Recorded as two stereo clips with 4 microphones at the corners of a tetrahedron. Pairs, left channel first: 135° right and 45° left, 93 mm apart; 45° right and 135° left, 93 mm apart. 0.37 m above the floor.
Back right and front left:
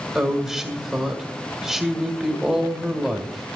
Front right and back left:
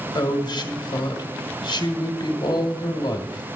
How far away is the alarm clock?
No alarm clock in this recording.